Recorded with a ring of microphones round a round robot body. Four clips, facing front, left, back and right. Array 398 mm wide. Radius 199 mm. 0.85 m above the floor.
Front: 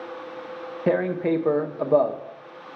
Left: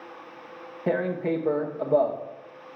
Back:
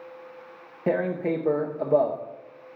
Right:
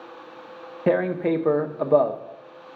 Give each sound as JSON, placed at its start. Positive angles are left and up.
{"t": 0.9, "sound": "tearing paper", "azimuth_deg": -55, "distance_m": 0.7}